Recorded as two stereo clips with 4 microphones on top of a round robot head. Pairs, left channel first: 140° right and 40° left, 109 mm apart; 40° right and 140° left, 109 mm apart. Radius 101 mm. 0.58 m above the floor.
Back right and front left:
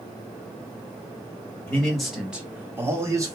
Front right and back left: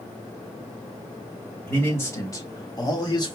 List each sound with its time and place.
1.7 s a man speaking: 85° right, 1.2 m; by 3.4 s 5° right, 1.6 m